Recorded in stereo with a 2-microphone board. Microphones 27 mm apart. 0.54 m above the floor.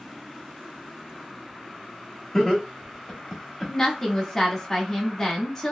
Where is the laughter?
15° left (ahead or behind), 1.0 m.